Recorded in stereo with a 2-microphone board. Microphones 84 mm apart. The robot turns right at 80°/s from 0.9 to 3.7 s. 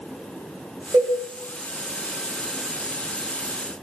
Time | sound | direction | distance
0.9 | a cowbell | 55° right (ahead or behind) | 2 m